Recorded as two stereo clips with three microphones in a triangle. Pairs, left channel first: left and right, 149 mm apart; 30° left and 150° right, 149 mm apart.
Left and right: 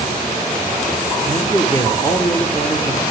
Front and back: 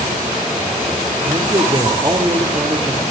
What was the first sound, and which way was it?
A man speaking, 155° left.